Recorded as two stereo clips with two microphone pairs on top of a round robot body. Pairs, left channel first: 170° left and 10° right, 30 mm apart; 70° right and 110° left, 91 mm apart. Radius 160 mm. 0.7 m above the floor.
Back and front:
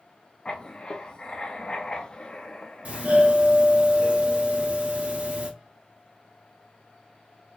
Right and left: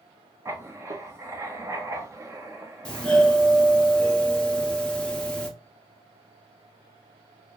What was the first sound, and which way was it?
Writing, 165° left.